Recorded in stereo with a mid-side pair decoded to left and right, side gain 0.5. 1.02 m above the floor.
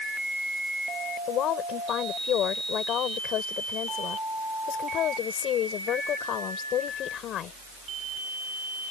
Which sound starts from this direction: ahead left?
A woman speaking, at 1.3 s.